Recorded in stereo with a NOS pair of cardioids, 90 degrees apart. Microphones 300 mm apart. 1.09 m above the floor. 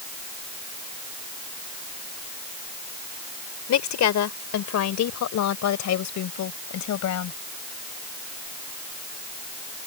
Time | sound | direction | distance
3.7 | a woman speaking | 65° left | ?